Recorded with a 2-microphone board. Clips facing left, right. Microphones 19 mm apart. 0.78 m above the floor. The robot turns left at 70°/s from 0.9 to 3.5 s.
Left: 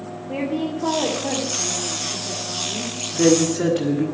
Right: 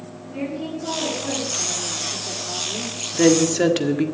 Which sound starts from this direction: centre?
A woman speaking, at 3.1 s.